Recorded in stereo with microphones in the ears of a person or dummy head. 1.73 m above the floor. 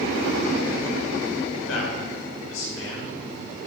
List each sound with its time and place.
1.5 s a man speaking: 85° left, 6.5 m; by 3.7 s 70° left (ahead or behind), 6.5 m